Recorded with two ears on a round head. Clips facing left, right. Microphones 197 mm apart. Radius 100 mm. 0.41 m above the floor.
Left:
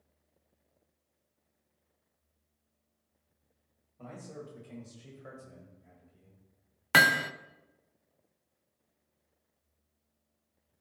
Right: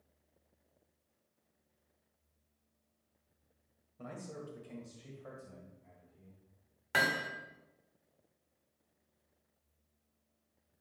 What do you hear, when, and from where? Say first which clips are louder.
4.0 s a man speaking: left 1 dB; 15° right (ahead or behind), 1.7 m; by 6.4 s 40° left (ahead or behind), 2.0 m
6.9 s hammering: left 6 dB; 75° left (ahead or behind), 0.5 m